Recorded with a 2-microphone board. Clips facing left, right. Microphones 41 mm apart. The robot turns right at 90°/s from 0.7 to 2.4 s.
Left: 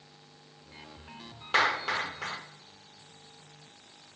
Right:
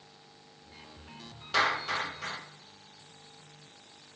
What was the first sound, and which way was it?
A clap, 40° left (ahead or behind).